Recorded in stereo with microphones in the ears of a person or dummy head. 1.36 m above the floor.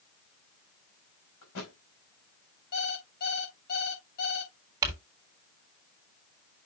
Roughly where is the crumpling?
Right.